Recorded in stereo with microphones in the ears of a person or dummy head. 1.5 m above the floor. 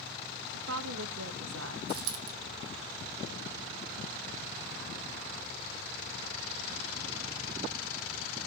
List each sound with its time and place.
0.5 s a woman speaking: 70° right (ahead or behind), 2.5 m
1.9 s a dropped coin: 60° right (ahead or behind), 4.5 m